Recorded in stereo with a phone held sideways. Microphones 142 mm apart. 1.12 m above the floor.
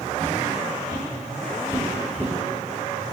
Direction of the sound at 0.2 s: 40° right (ahead or behind).